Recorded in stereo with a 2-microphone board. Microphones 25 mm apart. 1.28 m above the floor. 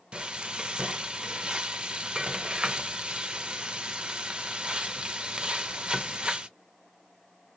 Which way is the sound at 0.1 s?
40° right (ahead or behind).